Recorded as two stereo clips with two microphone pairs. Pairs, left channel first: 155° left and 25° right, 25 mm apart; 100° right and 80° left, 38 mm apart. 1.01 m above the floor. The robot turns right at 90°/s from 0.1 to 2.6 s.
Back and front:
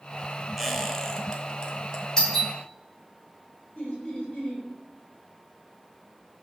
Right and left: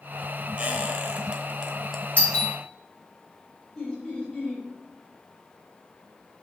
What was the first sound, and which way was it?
A squeak, 50° left.